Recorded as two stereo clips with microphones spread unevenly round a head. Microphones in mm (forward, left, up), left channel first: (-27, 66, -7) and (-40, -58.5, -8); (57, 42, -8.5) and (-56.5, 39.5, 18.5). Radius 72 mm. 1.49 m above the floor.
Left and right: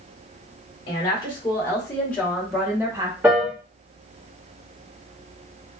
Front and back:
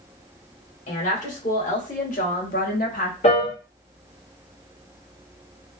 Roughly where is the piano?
Ahead right.